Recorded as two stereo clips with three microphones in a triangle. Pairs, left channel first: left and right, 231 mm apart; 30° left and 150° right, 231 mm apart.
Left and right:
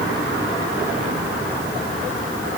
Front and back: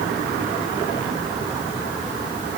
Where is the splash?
No splash in this recording.